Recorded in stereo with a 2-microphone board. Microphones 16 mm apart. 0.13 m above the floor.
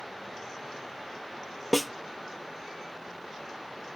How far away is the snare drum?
About 0.7 m.